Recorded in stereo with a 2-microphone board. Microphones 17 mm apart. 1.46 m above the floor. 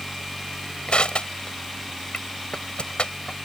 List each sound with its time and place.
0.9 s crushing: 90° left